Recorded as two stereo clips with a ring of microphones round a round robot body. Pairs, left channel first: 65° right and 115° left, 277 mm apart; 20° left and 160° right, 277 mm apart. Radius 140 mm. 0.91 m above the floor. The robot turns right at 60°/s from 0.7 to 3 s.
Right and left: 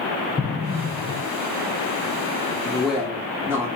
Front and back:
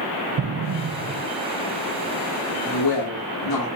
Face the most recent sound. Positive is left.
turn(degrees=30)